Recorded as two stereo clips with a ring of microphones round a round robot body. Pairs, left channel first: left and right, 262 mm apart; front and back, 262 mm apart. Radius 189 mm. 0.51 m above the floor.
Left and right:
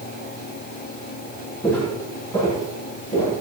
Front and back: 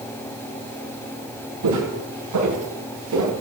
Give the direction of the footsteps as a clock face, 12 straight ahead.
6 o'clock.